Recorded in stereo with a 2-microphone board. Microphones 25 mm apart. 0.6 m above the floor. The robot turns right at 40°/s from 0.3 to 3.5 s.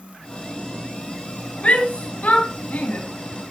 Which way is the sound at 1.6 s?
55° left (ahead or behind).